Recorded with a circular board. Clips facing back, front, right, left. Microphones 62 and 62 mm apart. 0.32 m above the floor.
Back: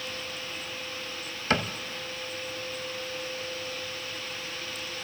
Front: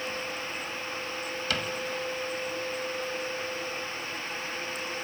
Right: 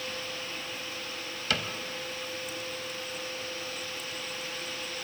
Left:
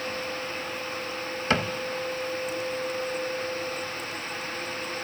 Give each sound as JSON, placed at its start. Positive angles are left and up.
{"t": 1.5, "sound": "a cupboard door", "azimuth_deg": 135, "distance_m": 0.8}